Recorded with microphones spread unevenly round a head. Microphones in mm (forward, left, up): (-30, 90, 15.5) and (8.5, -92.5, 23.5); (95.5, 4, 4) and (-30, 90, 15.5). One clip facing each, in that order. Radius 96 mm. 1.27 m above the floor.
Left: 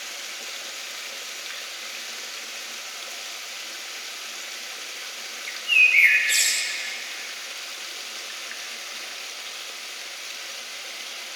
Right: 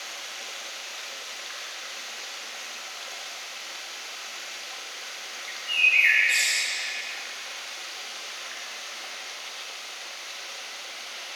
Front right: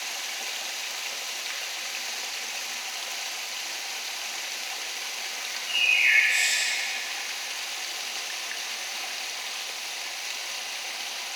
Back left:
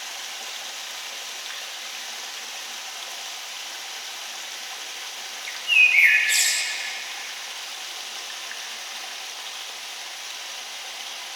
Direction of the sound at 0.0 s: 45° left.